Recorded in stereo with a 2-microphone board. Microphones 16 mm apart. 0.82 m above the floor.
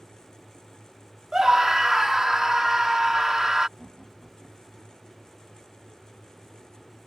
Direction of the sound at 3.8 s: 40° left (ahead or behind).